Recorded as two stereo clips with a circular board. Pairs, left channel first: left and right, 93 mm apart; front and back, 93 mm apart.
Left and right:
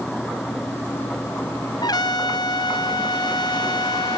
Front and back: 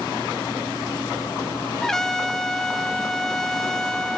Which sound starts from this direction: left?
A trumpet, at 1.8 s.